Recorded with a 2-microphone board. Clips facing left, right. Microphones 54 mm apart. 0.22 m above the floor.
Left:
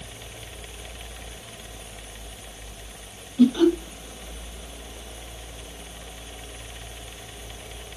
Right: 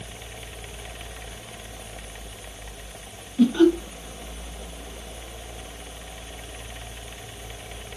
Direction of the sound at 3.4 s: 20° right (ahead or behind).